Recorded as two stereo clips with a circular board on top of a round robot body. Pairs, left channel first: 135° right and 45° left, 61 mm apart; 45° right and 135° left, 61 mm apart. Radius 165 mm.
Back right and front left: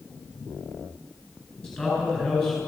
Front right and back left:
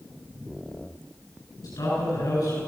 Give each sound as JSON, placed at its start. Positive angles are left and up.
{"t": 1.6, "sound": "a man speaking", "azimuth_deg": -60, "distance_m": 9.5}